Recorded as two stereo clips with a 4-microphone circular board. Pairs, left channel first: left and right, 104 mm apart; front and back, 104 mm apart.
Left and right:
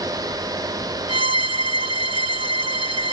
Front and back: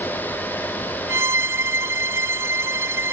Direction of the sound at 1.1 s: 115° right.